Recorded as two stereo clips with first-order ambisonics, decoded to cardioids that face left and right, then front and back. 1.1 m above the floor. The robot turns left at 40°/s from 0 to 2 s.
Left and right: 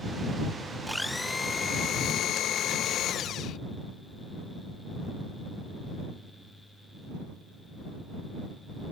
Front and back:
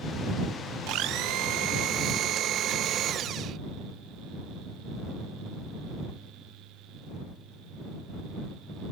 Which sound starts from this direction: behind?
A blender, at 0.9 s.